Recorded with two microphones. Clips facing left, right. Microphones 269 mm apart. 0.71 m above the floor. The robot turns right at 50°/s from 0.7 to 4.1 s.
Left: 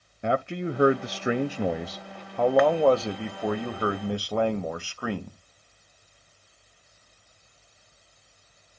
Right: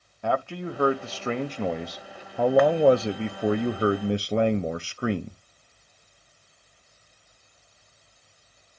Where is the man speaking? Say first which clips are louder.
Left 1 dB; 20° left (ahead or behind), 0.6 m; by 5.4 s 25° right (ahead or behind), 0.6 m.